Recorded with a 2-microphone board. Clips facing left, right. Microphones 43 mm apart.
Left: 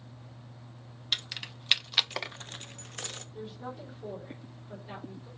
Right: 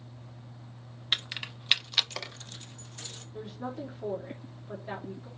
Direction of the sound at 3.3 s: 60° right (ahead or behind).